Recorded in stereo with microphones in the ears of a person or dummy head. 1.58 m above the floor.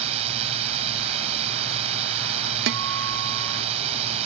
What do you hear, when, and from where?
0.0 s a drone: 35° right (ahead or behind)
2.7 s a guitar: 60° right (ahead or behind)